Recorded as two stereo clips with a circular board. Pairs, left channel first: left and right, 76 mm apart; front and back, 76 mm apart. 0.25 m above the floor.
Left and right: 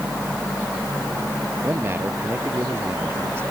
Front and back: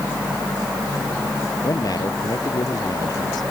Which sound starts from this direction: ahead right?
A man speaking, at 1.6 s.